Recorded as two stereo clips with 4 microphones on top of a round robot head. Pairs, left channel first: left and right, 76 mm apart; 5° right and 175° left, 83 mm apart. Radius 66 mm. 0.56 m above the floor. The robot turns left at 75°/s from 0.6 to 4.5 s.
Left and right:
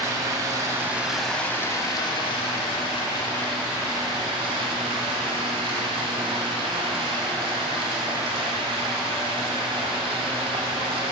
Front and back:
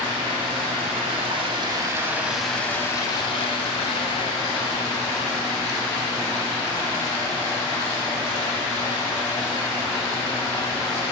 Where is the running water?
135° right, 0.8 m; by 11.1 s 65° right, 0.8 m.